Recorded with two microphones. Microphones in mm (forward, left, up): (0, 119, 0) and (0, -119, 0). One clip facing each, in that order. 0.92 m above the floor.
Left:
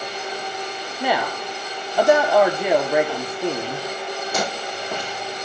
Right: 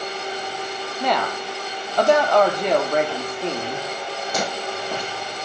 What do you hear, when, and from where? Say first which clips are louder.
1.0 s a woman speaking: left 1 dB; 10° left (ahead or behind), 2.5 m